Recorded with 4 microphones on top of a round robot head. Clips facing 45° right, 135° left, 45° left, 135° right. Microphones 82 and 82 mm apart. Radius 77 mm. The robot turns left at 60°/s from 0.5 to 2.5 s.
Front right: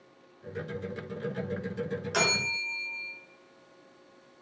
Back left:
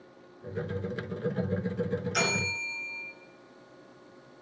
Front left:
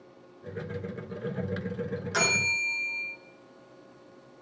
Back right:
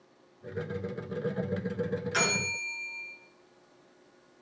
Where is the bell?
25° right, 4.5 m; by 3.1 s 45° right, 4.5 m.